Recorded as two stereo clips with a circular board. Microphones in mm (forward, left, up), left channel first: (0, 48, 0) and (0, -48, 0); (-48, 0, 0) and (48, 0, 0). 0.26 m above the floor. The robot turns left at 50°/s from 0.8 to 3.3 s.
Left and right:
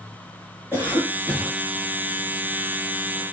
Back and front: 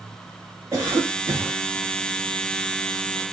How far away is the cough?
About 1.3 m.